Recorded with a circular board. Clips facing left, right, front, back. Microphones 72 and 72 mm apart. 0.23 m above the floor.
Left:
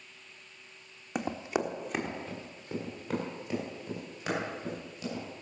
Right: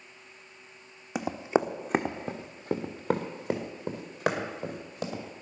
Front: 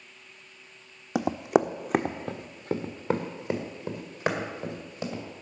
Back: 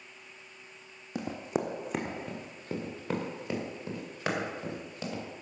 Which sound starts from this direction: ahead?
Running footsteps, at 1.1 s.